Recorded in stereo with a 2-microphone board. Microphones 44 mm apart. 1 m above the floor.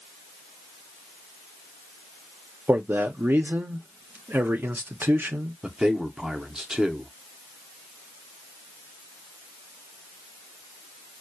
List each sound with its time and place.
2.7 s a man speaking: 50° right (ahead or behind), 0.5 m
5.6 s a man speaking: 20° right (ahead or behind), 0.6 m